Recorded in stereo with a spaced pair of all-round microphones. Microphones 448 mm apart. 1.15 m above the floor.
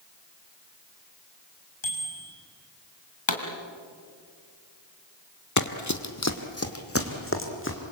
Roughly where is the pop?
Left.